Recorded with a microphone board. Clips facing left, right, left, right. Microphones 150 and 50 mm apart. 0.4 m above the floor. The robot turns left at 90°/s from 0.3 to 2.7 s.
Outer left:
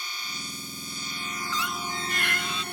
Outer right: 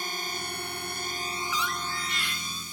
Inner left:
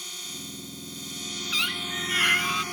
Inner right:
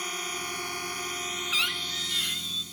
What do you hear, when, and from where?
0.0 s a drone: 55° right; by 2.7 s 90° left
1.5 s a squeak: 175° right; by 2.6 s 85° left